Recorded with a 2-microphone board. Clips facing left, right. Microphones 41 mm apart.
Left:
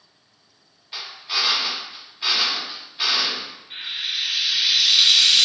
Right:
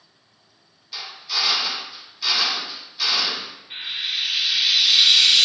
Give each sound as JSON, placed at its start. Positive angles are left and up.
{"t": 0.9, "sound": "a drill", "side_deg": 25, "distance_m": 0.8}
{"t": 3.7, "sound": "frying", "side_deg": -15, "distance_m": 1.3}